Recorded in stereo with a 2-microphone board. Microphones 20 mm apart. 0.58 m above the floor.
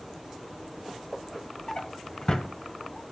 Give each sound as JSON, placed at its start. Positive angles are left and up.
{"t": 1.7, "sound": "a drawer", "side_deg": 40, "distance_m": 1.4}